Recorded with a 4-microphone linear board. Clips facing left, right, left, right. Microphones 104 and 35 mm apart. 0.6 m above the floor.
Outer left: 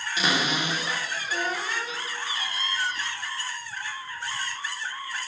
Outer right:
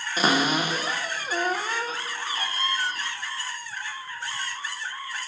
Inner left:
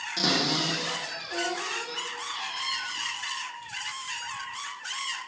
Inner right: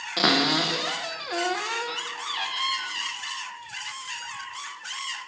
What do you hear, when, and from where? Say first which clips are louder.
0.2 s a cupboard door: outer right 4 dB, inner right 5 dB; 45° right (ahead or behind), 0.7 m